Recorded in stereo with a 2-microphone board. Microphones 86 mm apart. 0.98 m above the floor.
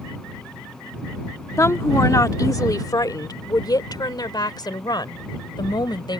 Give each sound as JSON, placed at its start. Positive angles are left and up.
{"t": 1.6, "sound": "a woman speaking", "side_deg": 35}